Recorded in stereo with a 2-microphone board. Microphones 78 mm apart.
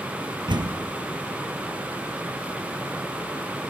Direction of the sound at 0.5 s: 75° right (ahead or behind).